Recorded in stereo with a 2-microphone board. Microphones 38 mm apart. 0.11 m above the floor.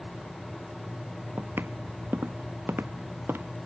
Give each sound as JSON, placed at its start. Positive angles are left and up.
{"t": 1.4, "sound": "footsteps", "side_deg": -80}